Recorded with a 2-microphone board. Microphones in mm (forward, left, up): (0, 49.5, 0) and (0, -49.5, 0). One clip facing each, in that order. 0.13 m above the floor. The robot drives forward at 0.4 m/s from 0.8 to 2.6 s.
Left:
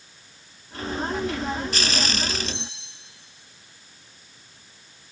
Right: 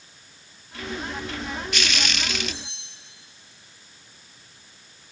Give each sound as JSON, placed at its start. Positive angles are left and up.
{"t": 2.5, "sound": "cutlery clinking", "side_deg": 70, "distance_m": 6.0}